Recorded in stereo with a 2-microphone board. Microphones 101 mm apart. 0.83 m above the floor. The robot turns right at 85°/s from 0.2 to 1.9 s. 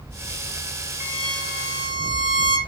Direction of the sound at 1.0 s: 155° right.